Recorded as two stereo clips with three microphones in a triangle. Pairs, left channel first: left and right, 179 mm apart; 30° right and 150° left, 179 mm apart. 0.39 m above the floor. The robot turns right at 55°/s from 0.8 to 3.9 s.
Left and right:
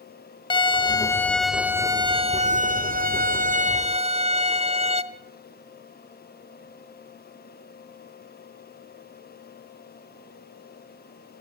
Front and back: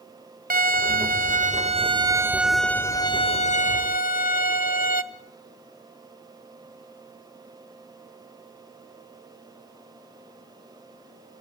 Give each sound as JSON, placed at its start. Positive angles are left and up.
{"t": 0.5, "sound": "a violin", "azimuth_deg": 145, "distance_m": 1.0}